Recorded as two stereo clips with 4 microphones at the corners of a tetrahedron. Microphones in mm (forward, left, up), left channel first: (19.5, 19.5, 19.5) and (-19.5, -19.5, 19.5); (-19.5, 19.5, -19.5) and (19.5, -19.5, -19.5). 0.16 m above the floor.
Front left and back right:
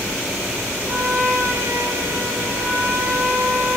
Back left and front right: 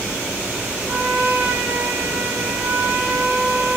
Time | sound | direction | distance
0.9 | a trumpet | 115° right | 7 m